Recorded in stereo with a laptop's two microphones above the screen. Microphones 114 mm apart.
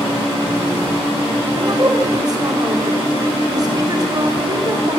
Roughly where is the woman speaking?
Right.